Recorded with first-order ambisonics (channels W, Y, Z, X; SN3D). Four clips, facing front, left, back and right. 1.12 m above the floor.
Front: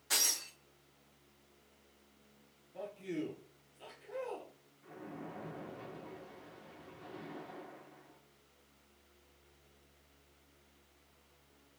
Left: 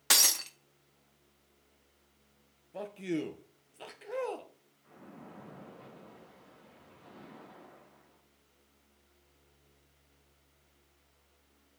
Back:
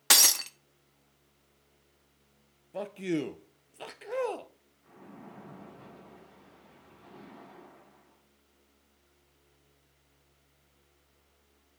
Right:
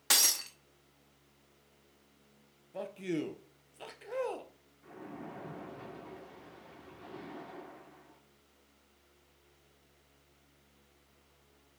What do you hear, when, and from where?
0.1 s breaking glass: 170° left, 0.9 m
2.7 s a man speaking: straight behind, 0.8 m
4.8 s a splash: 65° right, 2.5 m